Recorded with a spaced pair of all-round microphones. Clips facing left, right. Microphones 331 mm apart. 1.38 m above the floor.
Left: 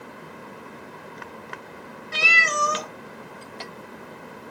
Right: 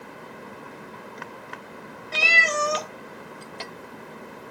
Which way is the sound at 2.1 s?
20° left (ahead or behind).